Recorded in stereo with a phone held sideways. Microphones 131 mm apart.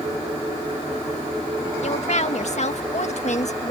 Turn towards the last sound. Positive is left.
turn(degrees=60)  # may be behind; listen again after turning